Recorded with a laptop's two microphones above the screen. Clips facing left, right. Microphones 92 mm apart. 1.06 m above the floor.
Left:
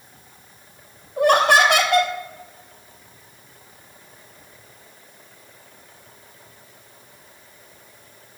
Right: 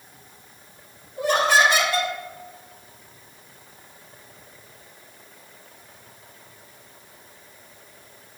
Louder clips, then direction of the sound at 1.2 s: Left 4 dB; 60° left (ahead or behind).